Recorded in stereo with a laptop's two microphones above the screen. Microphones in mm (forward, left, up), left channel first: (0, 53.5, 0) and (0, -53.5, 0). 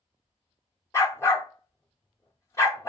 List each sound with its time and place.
0.9 s a dog barking: 25° left (ahead or behind), 0.7 m